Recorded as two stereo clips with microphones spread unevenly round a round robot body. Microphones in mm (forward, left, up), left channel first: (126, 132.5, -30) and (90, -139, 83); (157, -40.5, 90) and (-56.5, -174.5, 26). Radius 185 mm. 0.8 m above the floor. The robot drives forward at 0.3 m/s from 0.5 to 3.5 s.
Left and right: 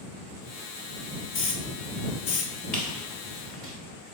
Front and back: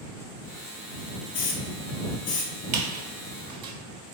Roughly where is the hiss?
Ahead left.